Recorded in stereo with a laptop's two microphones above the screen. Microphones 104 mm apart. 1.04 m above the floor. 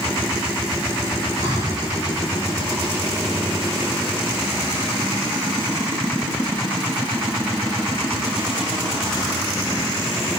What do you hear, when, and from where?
1.4 s breathing: 40° right (ahead or behind), 4 m